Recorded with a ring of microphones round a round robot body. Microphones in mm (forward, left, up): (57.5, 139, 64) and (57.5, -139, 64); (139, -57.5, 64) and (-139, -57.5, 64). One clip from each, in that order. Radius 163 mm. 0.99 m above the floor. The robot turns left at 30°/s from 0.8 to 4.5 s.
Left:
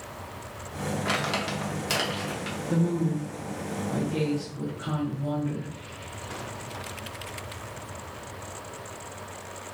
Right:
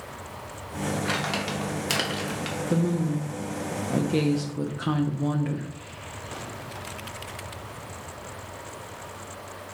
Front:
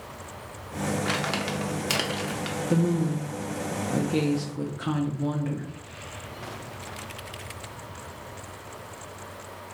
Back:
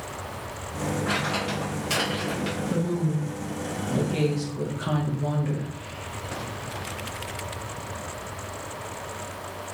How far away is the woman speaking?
About 0.5 m.